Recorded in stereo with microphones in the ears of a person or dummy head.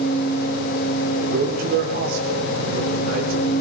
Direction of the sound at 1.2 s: 60° right (ahead or behind).